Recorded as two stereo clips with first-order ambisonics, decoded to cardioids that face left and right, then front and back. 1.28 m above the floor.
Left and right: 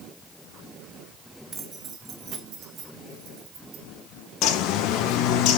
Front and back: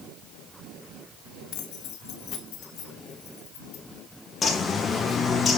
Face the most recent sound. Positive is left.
turn(degrees=65)